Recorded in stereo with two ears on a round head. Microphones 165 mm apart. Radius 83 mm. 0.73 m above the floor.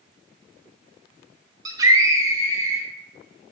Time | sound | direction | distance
1.6 | a scream | 20° right (ahead or behind) | 1.4 m